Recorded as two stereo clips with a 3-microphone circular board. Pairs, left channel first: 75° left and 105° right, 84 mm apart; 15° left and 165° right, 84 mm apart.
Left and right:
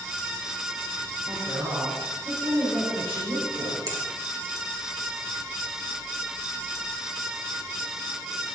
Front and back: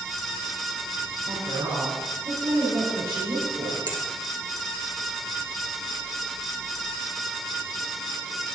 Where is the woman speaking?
130° right, 4.5 m.